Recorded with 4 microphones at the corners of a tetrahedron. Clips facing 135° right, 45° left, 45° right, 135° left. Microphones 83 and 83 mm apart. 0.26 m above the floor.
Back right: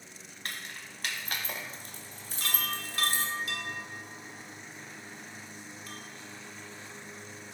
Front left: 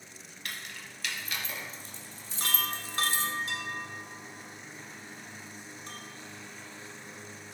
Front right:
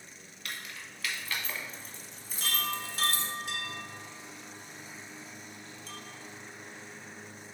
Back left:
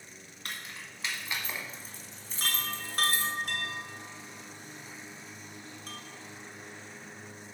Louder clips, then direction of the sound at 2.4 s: Front left 1 dB, front right 2 dB; 105° left.